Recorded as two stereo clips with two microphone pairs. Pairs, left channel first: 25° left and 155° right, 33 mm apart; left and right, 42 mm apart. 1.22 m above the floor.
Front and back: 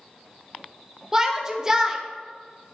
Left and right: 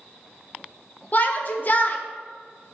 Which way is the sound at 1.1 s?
130° left.